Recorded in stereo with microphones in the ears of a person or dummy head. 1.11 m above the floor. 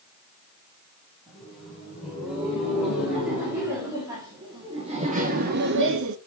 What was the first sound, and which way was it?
Laughter, centre (ahead or behind).